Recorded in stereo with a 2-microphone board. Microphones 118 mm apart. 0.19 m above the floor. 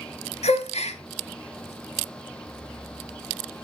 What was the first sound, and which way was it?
A gasp, 60° left (ahead or behind).